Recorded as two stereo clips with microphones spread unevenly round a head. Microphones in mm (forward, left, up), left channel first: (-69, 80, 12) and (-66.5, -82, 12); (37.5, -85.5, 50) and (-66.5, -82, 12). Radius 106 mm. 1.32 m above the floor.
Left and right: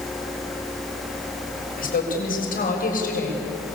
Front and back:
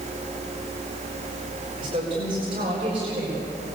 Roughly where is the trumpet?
I don't hear a trumpet.